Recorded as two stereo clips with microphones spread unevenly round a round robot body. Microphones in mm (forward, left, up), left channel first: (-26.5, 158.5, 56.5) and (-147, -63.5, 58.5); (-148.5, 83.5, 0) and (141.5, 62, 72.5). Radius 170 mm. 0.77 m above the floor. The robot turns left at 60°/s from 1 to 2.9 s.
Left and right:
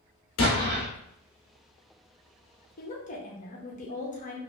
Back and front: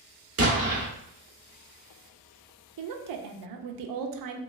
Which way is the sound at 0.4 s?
40° left.